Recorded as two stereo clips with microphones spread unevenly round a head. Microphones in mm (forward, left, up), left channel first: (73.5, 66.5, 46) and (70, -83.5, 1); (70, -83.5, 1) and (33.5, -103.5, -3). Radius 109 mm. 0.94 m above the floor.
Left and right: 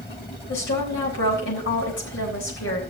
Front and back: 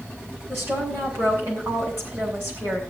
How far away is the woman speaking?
About 5.5 m.